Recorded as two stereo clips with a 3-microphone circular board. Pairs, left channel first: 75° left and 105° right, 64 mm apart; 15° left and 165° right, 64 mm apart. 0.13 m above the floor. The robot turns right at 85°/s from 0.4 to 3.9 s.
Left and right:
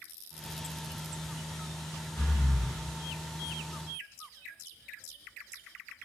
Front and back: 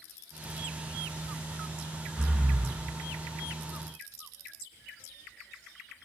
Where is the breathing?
110° left, 0.5 m; by 2.8 s 160° left, 0.5 m.